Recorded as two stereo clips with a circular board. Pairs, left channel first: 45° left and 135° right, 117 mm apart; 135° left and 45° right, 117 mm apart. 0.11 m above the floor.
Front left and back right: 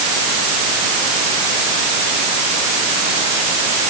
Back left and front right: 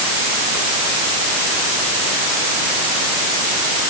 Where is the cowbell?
I don't hear a cowbell.